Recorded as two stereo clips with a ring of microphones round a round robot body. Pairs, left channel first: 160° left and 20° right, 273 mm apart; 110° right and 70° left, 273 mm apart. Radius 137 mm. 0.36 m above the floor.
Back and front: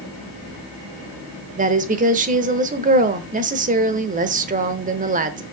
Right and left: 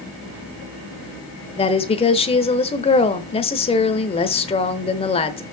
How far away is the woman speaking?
About 0.9 m.